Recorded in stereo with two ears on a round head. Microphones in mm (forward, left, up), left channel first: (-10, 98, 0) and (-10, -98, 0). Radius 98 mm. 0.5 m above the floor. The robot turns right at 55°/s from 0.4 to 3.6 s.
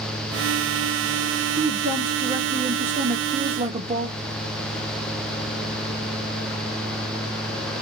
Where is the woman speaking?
165° right, 0.9 m; by 4.1 s 55° right, 0.9 m.